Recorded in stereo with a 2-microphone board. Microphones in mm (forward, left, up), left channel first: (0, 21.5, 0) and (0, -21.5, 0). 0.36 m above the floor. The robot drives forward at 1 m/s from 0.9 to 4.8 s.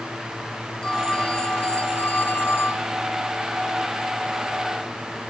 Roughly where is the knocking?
No knocking in this recording.